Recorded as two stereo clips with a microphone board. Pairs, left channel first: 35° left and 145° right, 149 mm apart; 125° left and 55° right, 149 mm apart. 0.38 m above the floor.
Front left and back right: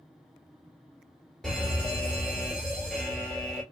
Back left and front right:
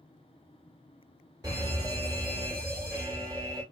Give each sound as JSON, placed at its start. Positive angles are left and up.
{"t": 1.4, "sound": "a fire alarm", "azimuth_deg": -45, "distance_m": 1.8}